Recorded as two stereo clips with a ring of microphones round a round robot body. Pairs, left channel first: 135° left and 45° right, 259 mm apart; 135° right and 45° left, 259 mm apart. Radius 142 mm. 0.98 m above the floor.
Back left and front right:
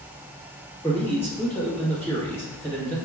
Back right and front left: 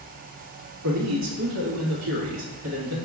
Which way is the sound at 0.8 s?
55° left.